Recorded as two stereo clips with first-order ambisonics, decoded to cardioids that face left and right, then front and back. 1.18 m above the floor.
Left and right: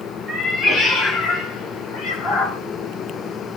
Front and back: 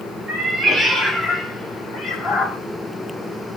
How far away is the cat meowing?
About 0.8 m.